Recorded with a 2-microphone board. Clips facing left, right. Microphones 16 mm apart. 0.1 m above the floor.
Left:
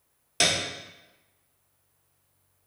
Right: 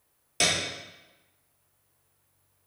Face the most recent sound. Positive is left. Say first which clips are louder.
# left 1 dB
turn(degrees=20)  # may be behind; listen again after turning